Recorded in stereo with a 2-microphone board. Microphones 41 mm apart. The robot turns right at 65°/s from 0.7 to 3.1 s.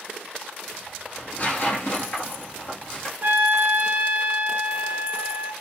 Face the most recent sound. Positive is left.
turn(degrees=-55)  # may be behind; listen again after turning